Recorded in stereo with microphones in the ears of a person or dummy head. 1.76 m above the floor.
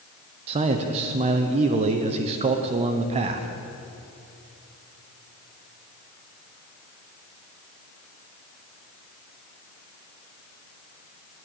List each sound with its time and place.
0.5 s a man speaking: 30° right (ahead or behind), 0.7 m